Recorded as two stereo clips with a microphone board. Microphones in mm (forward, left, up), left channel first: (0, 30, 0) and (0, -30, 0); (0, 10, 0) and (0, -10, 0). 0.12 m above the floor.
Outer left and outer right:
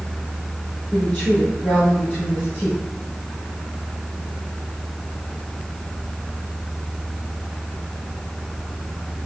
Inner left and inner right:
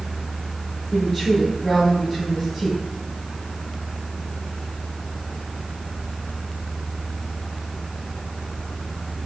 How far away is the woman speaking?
About 3.5 m.